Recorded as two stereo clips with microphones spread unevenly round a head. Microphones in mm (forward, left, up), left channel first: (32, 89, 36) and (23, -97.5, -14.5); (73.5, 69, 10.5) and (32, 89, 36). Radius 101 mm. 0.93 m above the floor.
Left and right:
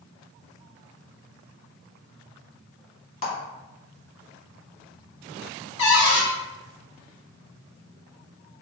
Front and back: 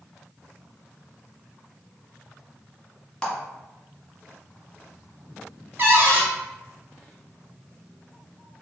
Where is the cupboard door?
100° left, 1.4 m.